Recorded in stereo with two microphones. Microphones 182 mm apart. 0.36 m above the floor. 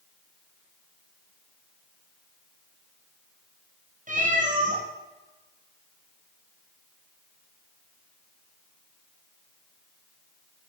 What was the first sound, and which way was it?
A cat meowing, 45° right (ahead or behind).